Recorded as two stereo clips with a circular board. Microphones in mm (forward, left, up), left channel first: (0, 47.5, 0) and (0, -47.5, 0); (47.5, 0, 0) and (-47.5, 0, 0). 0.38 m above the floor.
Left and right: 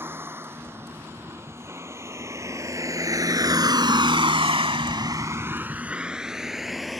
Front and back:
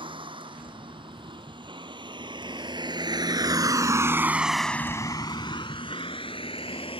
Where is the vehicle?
155° right; by 7.0 s straight ahead.